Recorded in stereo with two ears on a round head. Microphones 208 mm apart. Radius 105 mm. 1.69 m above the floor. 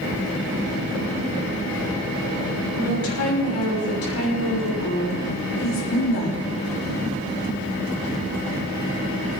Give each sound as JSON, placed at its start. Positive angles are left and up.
{"t": 2.8, "sound": "a woman speaking", "side_deg": 70, "distance_m": 8.5}